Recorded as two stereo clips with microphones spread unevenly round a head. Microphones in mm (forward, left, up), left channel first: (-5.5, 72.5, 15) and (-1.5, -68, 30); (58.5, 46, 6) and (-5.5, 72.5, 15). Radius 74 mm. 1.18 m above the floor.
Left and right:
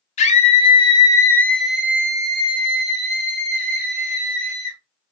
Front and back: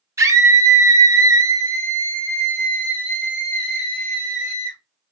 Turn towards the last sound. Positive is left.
turn(degrees=-110)